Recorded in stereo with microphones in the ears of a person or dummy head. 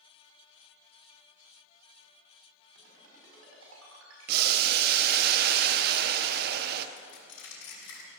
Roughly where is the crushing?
Left.